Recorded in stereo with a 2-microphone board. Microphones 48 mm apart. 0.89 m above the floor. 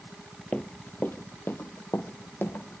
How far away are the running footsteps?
About 1.0 m.